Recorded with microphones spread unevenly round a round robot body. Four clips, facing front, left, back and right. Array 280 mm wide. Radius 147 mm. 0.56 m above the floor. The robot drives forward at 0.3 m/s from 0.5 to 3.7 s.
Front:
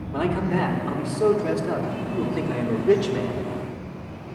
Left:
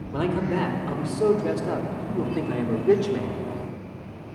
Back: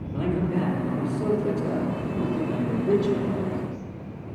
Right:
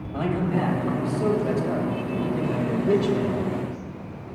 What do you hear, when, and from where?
0.1 s a man speaking: 40° left, 2 m; by 3.5 s 65° left, 1.7 m